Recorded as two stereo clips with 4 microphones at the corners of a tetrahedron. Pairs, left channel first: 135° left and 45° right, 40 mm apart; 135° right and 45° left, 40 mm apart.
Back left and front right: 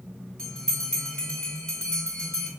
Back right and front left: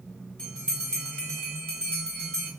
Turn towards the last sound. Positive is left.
turn(degrees=-170)